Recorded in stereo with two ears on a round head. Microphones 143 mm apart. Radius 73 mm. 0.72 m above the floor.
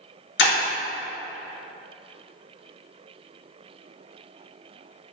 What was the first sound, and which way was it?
Breaking glass, 80° left.